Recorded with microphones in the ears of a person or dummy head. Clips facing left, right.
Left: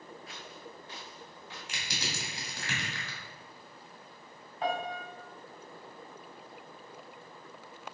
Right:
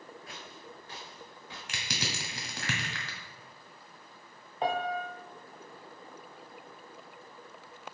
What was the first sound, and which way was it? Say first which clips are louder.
Footsteps: left 1 dB; 40° right (ahead or behind).